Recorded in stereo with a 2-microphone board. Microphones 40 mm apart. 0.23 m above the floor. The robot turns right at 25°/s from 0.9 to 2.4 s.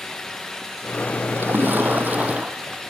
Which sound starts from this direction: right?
A splash, at 1.4 s.